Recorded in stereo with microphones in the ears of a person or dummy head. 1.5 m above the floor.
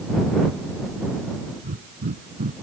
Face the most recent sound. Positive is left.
turn(degrees=-40)  # may be behind; listen again after turning